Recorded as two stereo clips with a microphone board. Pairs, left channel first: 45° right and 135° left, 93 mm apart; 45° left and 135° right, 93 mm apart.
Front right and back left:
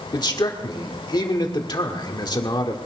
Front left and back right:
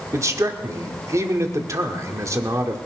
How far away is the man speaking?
About 1.7 m.